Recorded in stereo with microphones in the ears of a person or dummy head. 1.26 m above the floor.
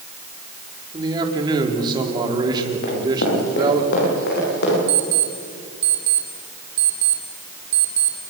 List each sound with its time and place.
0.9 s a man speaking: 20° right (ahead or behind), 3.5 m
2.8 s running footsteps: 60° left (ahead or behind), 9.5 m; by 4.8 s 55° left (ahead or behind), 12 m
4.9 s an alarm clock: 35° right (ahead or behind), 2.5 m